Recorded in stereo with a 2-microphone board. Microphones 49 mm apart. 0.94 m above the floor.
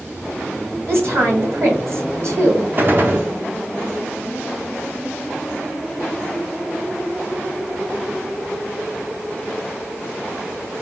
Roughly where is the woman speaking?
Right.